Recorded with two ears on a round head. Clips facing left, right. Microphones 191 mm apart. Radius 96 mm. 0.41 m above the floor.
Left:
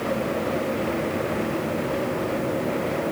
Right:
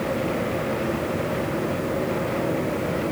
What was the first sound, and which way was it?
Only background noise.